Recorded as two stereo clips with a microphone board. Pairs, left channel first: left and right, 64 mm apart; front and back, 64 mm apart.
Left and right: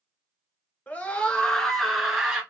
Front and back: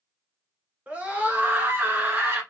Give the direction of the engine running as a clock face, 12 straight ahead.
I don't hear an engine running.